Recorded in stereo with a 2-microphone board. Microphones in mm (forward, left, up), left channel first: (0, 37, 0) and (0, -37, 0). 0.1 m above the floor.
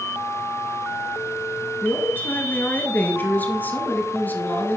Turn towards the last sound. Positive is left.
turn(degrees=25)  # may be behind; listen again after turning